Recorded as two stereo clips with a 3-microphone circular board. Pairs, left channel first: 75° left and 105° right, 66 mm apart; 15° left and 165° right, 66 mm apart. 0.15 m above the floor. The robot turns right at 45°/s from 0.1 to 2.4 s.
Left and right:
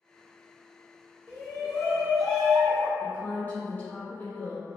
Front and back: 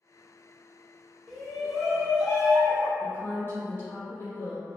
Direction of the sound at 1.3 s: 90° left.